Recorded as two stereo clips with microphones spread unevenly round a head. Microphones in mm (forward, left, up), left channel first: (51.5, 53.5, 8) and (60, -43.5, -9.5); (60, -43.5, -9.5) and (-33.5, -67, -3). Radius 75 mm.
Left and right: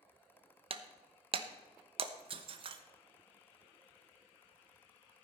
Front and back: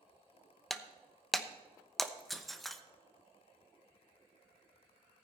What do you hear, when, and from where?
0.7 s breaking glass: 75° right, 1.0 m